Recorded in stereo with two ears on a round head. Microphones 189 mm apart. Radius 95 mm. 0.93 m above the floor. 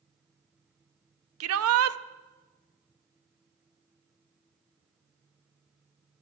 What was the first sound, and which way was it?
A shout, 75° right (ahead or behind).